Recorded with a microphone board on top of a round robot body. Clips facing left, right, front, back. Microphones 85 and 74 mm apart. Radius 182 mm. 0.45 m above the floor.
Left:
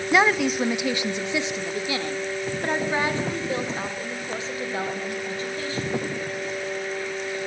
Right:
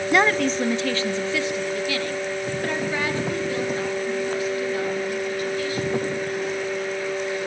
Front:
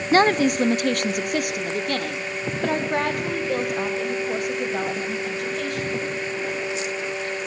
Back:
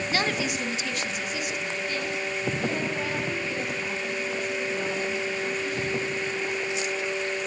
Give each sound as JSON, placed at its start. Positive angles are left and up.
{"t": 0.1, "sound": "a woman speaking", "azimuth_deg": 5, "distance_m": 0.8}